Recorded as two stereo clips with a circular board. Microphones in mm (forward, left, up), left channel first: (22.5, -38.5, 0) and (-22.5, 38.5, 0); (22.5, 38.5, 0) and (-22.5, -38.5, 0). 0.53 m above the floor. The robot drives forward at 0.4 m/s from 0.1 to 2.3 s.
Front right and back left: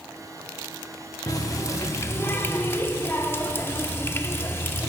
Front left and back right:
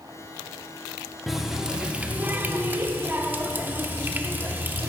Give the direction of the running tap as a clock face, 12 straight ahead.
1 o'clock.